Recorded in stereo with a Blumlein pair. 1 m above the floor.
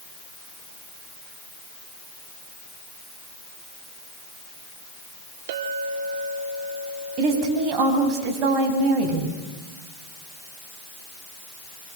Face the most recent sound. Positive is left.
turn(degrees=-35)